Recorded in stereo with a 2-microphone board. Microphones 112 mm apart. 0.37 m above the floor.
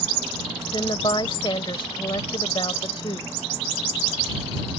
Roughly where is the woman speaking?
Left.